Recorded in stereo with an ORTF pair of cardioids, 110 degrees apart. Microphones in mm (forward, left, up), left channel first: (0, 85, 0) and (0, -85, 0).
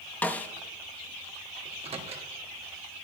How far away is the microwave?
About 1.5 m.